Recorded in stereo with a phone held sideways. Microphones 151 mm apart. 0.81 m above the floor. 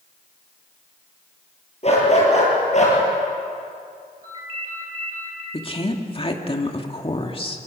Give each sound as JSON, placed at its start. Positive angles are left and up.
{"t": 1.8, "sound": "a dog barking", "side_deg": 45, "distance_m": 7.0}
{"t": 4.2, "sound": "a ringtone", "side_deg": -40, "distance_m": 8.5}
{"t": 5.5, "sound": "a woman speaking", "side_deg": 40, "distance_m": 2.0}